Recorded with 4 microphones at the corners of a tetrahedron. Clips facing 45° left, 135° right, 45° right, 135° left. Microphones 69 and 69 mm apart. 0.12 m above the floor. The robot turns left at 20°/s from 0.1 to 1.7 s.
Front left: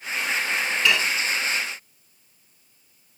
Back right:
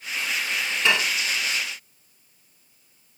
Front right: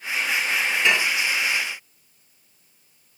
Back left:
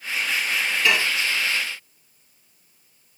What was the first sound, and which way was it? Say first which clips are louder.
Dishes clattering: back right 1 dB, even; 95° right.